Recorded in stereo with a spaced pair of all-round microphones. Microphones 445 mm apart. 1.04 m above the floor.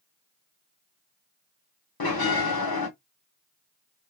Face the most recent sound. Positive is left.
turn(degrees=55)  # may be behind; listen again after turning